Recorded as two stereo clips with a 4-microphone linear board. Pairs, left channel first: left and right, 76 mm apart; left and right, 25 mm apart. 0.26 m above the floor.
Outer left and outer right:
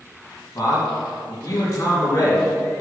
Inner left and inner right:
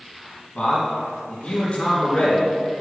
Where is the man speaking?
35° left (ahead or behind), 2.5 m.